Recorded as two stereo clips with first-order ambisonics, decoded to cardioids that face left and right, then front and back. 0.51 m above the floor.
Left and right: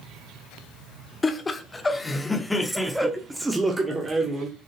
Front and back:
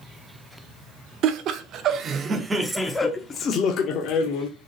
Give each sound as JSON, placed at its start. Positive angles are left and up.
{"t": 1.2, "sound": "laughter", "azimuth_deg": 160, "distance_m": 1.1}